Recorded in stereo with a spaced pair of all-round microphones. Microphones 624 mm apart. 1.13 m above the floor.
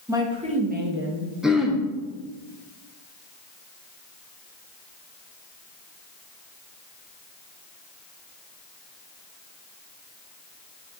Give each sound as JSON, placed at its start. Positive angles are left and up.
{"t": 0.1, "sound": "a woman speaking", "side_deg": -5, "distance_m": 1.6}
{"t": 1.4, "sound": "throat clearing", "side_deg": 0, "distance_m": 0.9}